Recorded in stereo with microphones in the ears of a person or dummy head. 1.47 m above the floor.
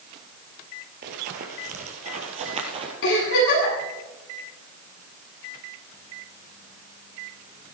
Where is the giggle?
65° left (ahead or behind), 9 m.